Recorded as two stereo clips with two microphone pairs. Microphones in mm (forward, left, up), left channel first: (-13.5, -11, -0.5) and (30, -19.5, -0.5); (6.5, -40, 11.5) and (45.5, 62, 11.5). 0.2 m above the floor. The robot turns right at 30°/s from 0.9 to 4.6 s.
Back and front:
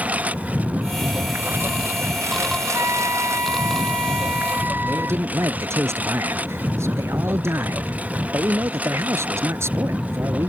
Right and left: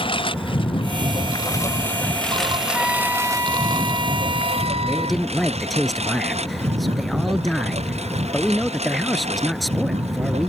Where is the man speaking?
20° right.